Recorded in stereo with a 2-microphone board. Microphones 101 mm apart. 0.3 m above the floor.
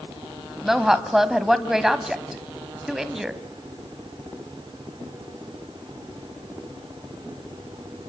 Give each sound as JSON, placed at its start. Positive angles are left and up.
{"t": 0.6, "sound": "a woman speaking", "side_deg": -5, "distance_m": 1.6}